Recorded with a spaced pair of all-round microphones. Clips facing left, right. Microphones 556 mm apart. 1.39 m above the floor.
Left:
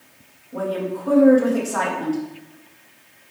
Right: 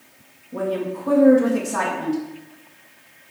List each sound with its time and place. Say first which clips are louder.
0.5 s a woman speaking: even; 45° right (ahead or behind), 2.5 m